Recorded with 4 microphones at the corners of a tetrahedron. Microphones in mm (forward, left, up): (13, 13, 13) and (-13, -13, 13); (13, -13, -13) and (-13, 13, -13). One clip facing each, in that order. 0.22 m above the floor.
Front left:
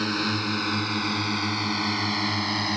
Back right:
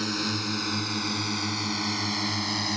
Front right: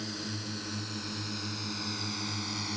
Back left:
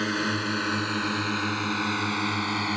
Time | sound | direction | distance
0.0 | a drone | 115° left | ?